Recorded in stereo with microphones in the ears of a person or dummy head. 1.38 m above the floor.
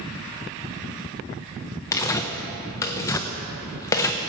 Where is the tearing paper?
15° left (ahead or behind), 0.6 m.